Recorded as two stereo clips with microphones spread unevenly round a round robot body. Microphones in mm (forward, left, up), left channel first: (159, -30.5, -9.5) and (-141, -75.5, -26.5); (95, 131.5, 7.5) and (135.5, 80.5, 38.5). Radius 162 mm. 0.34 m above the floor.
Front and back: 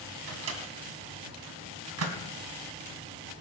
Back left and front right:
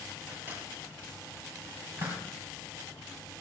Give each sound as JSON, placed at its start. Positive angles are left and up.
{"t": 0.3, "sound": "a microwave", "azimuth_deg": -140, "distance_m": 2.0}